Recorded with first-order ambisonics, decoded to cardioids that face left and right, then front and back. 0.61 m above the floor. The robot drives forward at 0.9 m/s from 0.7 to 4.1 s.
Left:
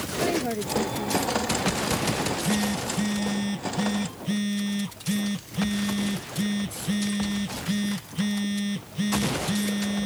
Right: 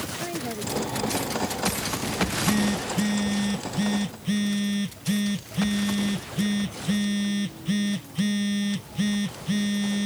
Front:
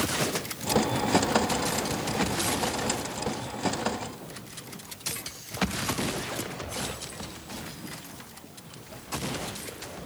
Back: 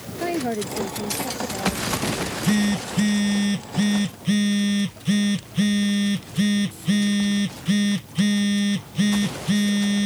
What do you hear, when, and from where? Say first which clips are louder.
0.2 s a woman speaking: left 5 dB, back 5 dB; 165° left
2.2 s a phone buzzing: right 1 dB, back 3 dB; 175° right